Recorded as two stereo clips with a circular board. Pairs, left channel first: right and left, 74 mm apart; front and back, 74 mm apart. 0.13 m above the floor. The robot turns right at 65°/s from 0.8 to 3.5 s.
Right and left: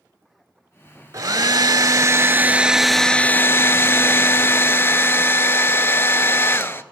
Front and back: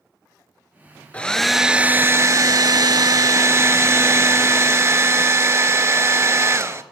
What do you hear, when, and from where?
1.1 s a hair dryer: 65° left, 0.5 m; by 6.8 s 140° right, 0.5 m